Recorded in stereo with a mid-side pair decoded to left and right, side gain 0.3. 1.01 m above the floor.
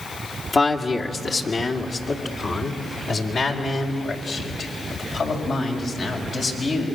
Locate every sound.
0.5 s a man speaking: 50° left, 2.5 m; by 6.9 s 75° left, 6.5 m